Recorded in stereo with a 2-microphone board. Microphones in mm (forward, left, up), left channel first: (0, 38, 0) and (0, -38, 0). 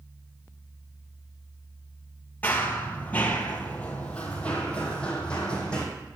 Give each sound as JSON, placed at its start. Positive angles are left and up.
{"t": 2.4, "sound": "running footsteps", "side_deg": 20, "distance_m": 1.5}